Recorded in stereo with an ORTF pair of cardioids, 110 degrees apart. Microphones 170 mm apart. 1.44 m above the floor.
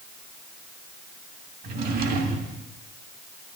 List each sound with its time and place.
1.6 s a drawer: 70° right, 1.7 m